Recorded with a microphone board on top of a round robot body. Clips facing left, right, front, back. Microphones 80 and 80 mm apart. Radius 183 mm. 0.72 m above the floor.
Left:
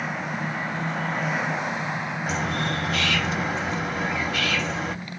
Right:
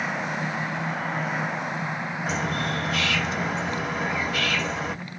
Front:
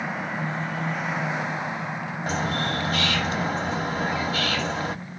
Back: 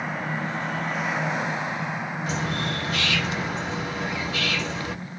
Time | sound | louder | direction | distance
2.3 | a bird | even, front 3 dB | straight ahead | 1.2 m